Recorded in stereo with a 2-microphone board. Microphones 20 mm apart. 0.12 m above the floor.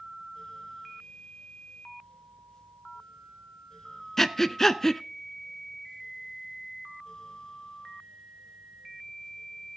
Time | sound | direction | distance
4.2 | breathing | 20° left (ahead or behind) | 0.6 m